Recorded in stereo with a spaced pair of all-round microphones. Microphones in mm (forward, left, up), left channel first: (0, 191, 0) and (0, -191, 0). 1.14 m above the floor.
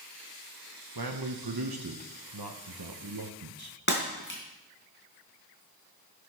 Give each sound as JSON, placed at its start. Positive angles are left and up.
{"t": 0.9, "sound": "a man speaking", "side_deg": -75, "distance_m": 1.0}
{"t": 3.9, "sound": "breaking glass", "side_deg": 30, "distance_m": 3.0}